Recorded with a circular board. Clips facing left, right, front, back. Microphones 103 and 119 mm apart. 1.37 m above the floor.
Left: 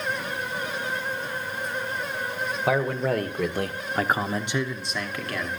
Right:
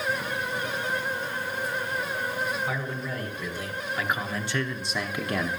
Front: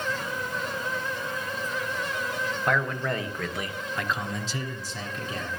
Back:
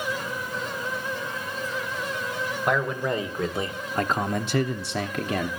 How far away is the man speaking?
About 1.4 m.